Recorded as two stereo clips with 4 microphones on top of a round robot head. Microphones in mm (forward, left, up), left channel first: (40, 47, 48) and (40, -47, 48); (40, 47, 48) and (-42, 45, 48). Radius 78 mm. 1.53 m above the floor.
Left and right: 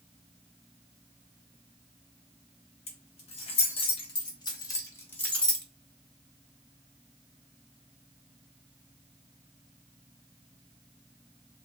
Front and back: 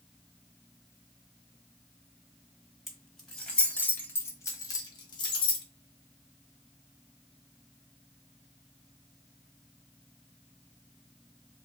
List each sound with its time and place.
2.9 s keys jangling: 90° left, 1.5 m; by 5.7 s straight ahead, 1.0 m